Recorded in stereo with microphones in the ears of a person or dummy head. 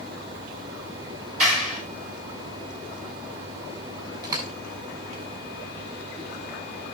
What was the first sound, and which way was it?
A clap, 40° right (ahead or behind).